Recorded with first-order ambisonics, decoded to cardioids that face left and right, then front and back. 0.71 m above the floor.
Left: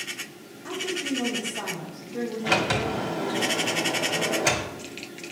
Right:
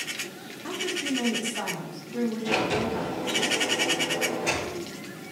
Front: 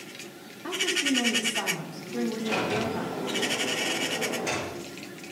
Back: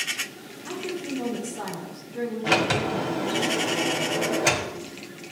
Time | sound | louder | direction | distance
0.6 | a woman speaking | even, front 6 dB | 25° right | 2.0 m
2.4 | a sliding door | left 3 dB, back 7 dB | 140° left | 1.3 m